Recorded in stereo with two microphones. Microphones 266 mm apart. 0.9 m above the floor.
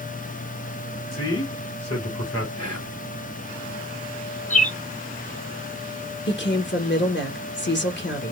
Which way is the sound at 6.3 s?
45° left (ahead or behind).